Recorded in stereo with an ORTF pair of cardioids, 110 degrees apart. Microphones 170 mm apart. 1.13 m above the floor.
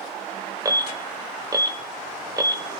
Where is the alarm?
20° right, 0.9 m.